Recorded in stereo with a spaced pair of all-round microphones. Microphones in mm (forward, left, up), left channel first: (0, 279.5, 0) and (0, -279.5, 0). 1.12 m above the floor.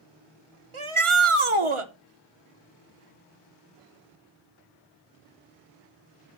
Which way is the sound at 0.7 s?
60° right (ahead or behind).